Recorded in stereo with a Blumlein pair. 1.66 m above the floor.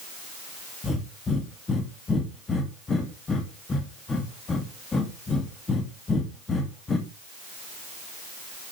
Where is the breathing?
15° left, 2.5 m.